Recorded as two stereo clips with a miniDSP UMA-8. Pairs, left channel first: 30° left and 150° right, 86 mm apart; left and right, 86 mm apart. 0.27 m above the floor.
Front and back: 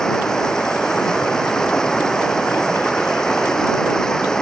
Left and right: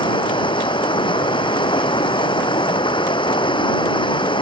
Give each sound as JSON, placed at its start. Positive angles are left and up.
{"t": 0.0, "sound": "running water", "azimuth_deg": 110}